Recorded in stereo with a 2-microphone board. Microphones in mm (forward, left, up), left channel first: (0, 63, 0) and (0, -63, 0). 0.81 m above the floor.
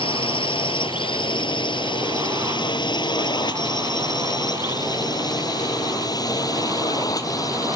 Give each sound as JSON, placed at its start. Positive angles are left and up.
{"t": 0.0, "sound": "a drone", "side_deg": 45}